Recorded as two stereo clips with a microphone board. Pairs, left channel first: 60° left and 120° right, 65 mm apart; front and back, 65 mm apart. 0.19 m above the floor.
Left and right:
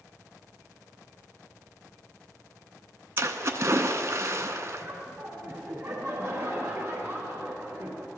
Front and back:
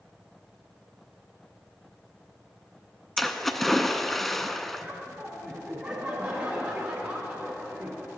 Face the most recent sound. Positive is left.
turn(degrees=-155)